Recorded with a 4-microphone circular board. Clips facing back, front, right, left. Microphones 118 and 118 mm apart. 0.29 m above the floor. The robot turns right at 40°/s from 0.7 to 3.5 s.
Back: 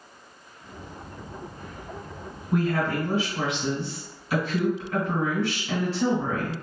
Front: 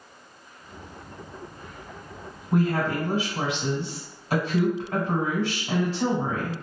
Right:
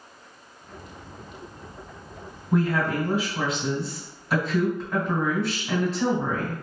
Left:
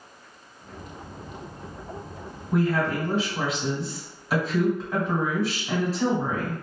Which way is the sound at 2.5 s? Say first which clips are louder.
Front 1 dB, even; 35° right.